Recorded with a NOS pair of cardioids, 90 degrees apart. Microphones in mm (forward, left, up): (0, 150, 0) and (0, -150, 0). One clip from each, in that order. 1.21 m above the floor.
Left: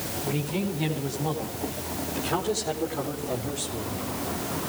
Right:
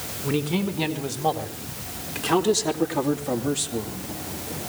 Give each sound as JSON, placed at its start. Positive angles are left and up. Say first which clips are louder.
{"t": 0.2, "sound": "a man speaking", "louder": "right 6 dB", "azimuth_deg": -65, "distance_m": 5.0}